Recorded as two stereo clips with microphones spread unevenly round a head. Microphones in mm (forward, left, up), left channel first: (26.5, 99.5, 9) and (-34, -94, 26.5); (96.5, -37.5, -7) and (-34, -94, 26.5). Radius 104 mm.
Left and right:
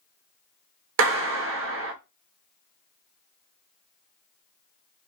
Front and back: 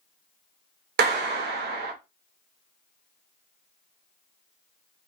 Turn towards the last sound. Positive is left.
turn(degrees=-140)